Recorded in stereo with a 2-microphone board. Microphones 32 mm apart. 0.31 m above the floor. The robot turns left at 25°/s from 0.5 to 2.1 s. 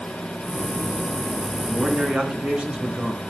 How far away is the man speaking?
About 3 m.